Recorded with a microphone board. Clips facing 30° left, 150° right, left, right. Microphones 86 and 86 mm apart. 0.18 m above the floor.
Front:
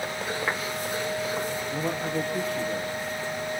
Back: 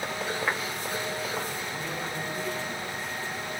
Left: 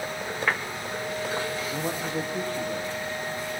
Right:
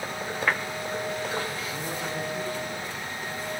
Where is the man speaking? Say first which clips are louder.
Front 6 dB, left 3 dB; 50° left, 7 m.